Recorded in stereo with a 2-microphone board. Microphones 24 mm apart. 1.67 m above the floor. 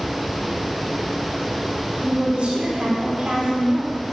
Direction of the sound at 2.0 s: 55° right (ahead or behind).